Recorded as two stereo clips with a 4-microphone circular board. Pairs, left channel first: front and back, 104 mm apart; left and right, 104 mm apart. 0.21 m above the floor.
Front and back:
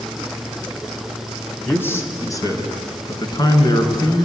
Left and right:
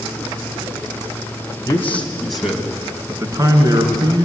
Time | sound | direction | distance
1.7 | a man speaking | 55° left | 1.7 m